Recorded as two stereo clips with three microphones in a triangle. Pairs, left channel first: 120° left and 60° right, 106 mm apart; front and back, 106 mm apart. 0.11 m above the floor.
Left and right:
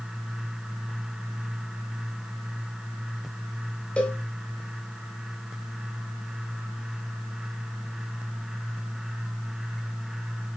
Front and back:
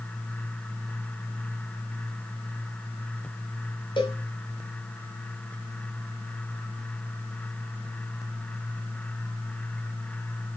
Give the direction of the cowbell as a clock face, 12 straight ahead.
11 o'clock.